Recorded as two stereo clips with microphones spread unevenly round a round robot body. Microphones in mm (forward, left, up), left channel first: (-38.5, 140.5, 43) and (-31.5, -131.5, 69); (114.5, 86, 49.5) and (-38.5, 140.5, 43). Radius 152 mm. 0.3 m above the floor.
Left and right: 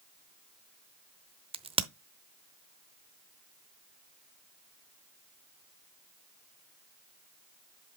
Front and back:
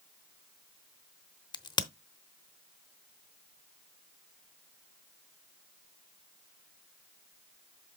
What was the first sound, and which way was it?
A crack, 35° right.